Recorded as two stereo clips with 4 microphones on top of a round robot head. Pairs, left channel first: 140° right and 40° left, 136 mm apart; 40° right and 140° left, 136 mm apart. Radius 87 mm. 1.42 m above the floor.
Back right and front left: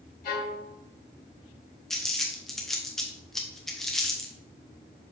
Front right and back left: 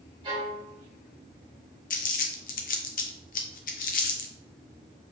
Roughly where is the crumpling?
Ahead right.